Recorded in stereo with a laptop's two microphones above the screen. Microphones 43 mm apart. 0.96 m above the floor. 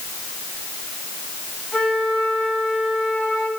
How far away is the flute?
About 4 m.